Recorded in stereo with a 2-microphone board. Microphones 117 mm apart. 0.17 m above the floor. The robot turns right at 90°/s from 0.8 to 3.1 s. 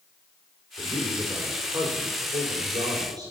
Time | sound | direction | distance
0.8 | a man speaking | 120° left | 5 m